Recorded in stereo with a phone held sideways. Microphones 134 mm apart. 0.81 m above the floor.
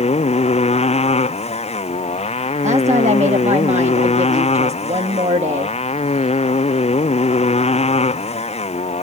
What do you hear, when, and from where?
0.0 s a motorcycle: 50° left (ahead or behind)
2.6 s a woman speaking: 55° right (ahead or behind)